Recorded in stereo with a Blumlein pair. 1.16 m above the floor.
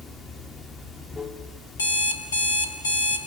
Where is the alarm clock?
65° left, 2.0 m.